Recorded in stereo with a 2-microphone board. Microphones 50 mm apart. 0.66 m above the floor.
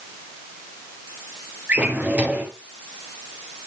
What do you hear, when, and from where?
1.7 s a drawer: 35° right (ahead or behind), 4 m